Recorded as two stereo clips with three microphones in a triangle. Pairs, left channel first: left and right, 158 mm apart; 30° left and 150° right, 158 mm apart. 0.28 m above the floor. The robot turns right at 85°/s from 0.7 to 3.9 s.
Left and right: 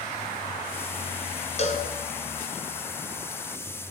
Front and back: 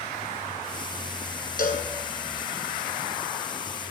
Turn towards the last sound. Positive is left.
turn(degrees=-120)